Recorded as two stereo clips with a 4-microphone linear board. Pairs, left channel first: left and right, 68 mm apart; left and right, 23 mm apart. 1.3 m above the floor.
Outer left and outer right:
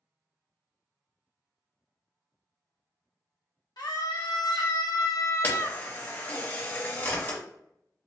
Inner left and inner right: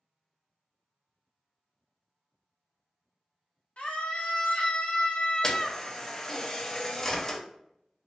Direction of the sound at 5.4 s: 30° left (ahead or behind).